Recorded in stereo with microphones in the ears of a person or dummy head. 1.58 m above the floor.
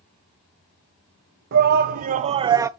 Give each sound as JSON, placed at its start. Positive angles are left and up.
{"t": 1.5, "sound": "a shout", "side_deg": -60, "distance_m": 0.8}